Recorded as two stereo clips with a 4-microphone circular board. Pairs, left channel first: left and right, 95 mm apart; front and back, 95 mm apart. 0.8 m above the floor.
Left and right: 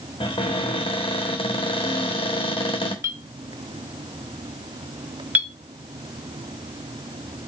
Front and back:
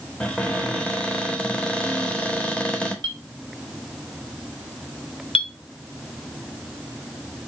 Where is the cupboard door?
80° left, 1.1 m.